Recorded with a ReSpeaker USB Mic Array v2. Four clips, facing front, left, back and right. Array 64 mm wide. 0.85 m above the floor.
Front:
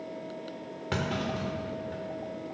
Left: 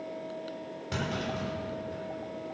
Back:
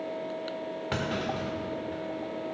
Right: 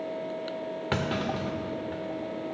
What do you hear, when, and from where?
0.9 s a clunk: 95° right, 0.8 m